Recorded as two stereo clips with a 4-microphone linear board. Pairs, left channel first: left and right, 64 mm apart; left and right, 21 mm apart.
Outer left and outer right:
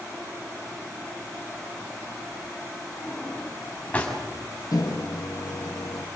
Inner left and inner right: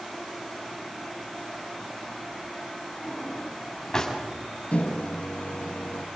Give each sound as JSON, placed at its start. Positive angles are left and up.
{"t": 3.0, "sound": "a drawer", "side_deg": 20, "distance_m": 7.0}
{"t": 4.7, "sound": "a microwave", "side_deg": 70, "distance_m": 1.4}